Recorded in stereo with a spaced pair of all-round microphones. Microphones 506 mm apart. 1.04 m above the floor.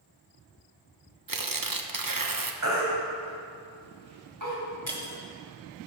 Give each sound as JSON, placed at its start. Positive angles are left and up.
{"t": 1.3, "sound": "tearing paper", "side_deg": -40, "distance_m": 0.8}
{"t": 2.6, "sound": "a baby crying", "side_deg": -35, "distance_m": 3.0}
{"t": 4.9, "sound": "breaking glass", "side_deg": -35, "distance_m": 2.5}